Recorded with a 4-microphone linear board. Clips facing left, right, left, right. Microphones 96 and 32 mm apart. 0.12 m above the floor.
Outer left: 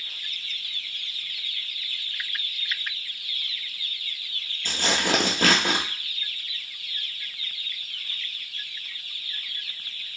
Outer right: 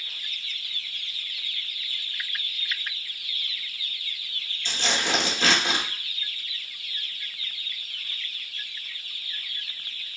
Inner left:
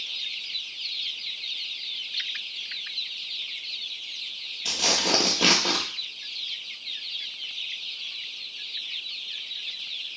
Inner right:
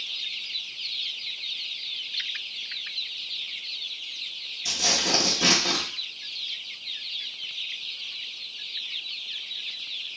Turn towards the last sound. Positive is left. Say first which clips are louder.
# outer left 3 dB, inner left 1 dB
turn(degrees=50)  # may be behind; listen again after turning